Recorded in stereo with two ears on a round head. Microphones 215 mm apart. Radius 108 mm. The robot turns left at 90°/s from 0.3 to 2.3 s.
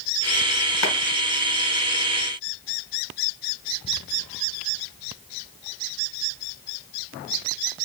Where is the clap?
70° left (ahead or behind), 1.7 m; by 0.9 s 65° left (ahead or behind), 1.7 m.